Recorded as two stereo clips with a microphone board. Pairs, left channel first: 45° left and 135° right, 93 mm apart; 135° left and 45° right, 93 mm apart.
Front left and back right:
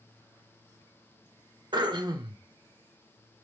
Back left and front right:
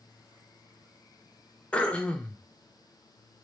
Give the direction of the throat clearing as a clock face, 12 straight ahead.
5 o'clock.